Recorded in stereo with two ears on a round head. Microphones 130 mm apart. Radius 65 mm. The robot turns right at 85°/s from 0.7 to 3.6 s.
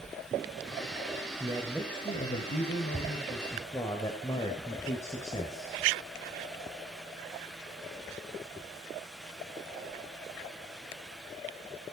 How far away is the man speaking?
About 2.5 m.